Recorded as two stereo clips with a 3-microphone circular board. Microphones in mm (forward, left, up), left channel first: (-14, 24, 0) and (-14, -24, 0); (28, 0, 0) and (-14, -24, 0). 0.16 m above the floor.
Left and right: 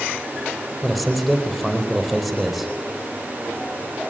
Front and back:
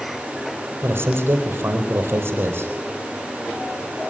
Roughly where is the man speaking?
Behind.